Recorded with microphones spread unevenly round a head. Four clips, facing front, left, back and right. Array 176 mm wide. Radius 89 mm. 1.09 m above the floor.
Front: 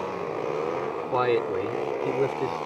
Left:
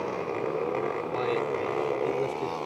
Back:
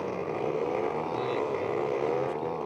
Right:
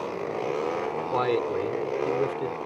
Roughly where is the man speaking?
Ahead right.